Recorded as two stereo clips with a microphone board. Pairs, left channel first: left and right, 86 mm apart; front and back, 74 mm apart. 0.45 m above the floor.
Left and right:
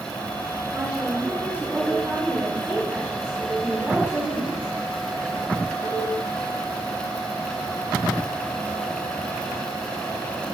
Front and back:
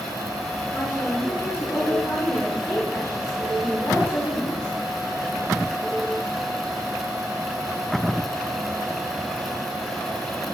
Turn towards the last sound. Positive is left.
turn(degrees=-35)